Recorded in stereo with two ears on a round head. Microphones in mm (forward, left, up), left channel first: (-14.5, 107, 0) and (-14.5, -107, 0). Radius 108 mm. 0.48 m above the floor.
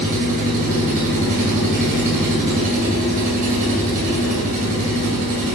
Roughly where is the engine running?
Right.